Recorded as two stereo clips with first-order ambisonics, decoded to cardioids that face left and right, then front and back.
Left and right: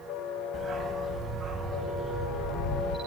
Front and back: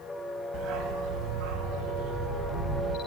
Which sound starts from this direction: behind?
A dog barking, at 0.5 s.